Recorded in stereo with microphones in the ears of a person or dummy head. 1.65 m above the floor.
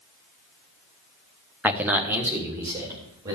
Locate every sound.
1.6 s a man speaking: 10° right (ahead or behind), 0.8 m; by 3.4 s 20° right (ahead or behind), 3 m